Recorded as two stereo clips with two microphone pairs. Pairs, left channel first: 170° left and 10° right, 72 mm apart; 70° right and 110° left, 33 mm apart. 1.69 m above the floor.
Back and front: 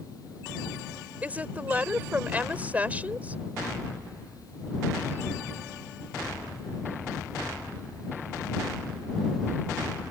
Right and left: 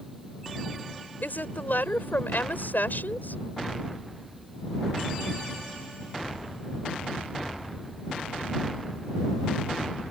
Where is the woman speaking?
75° right.